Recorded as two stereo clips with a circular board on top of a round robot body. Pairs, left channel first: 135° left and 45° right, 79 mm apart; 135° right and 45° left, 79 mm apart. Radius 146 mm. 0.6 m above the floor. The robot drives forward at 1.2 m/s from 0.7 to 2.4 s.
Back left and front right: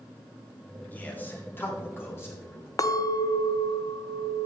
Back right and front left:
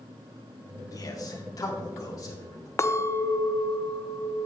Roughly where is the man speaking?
Behind.